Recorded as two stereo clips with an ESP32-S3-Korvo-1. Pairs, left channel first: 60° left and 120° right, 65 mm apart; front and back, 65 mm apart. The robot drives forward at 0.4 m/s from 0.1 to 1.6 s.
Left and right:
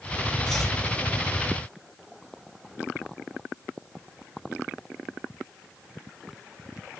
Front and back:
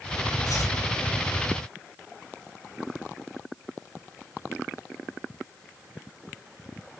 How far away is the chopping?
About 3.5 m.